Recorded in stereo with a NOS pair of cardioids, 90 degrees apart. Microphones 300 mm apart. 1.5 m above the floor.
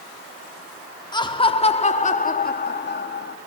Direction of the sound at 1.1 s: 15° left.